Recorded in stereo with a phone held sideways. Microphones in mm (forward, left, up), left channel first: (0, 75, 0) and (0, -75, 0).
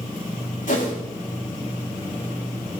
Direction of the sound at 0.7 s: 65° left (ahead or behind).